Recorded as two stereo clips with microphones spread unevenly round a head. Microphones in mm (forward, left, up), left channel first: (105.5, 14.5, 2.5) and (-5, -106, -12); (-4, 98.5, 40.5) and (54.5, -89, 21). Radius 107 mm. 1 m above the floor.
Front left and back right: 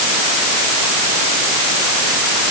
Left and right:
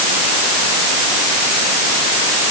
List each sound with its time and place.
Only background noise.